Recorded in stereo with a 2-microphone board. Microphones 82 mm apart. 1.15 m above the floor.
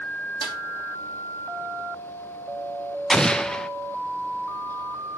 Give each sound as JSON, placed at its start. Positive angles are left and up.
{"t": 0.4, "sound": "a snare drum", "side_deg": 75, "distance_m": 2.5}
{"t": 3.1, "sound": "an explosion", "side_deg": 10, "distance_m": 0.7}